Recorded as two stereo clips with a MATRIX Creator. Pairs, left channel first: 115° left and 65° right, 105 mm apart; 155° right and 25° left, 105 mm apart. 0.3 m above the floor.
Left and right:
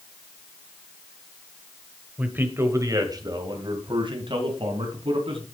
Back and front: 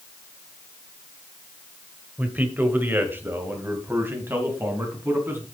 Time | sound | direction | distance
2.2 | a man speaking | 20° right | 1.2 m